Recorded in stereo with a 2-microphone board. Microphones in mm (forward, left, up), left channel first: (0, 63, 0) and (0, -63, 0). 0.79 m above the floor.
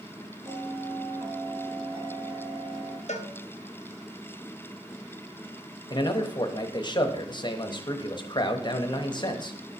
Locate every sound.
0.5 s a bell: 50° right (ahead or behind), 3 m
3.1 s a cowbell: 65° left (ahead or behind), 0.7 m
5.9 s a man speaking: 35° left (ahead or behind), 0.8 m